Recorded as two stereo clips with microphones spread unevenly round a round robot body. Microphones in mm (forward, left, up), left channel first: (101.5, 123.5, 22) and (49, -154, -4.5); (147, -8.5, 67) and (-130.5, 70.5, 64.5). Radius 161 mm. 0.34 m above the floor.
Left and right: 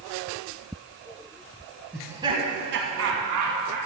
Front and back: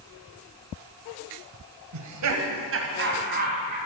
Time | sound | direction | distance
1.9 | laughter | 170° left | 1.8 m